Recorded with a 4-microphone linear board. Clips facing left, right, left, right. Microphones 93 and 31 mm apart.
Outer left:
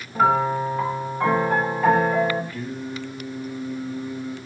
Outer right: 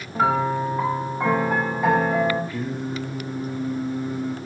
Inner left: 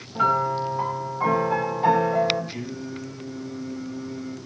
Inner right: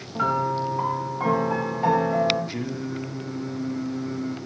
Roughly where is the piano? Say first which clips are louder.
Outer left 2 dB, inner left 2 dB; centre.